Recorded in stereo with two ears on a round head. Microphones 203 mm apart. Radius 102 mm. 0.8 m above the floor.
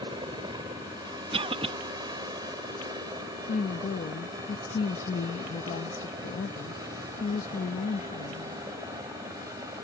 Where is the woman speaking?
35° left (ahead or behind).